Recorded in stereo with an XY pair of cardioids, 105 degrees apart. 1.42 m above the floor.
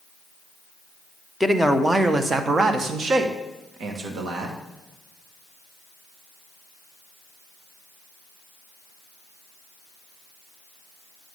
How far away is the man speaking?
About 1.1 m.